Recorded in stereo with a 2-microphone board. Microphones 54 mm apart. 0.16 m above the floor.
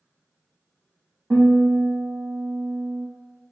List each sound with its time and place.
1.3 s a guitar: 65° right (ahead or behind), 1.5 m